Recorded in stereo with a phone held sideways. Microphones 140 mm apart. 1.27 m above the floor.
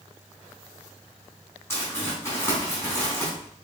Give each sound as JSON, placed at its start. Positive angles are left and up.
{"t": 1.7, "sound": "crumpling", "side_deg": 20, "distance_m": 4.0}